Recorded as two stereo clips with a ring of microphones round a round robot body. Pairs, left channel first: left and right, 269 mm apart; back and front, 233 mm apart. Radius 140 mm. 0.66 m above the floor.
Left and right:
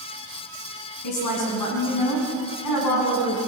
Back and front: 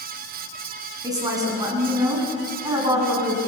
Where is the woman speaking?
75° left, 7 m.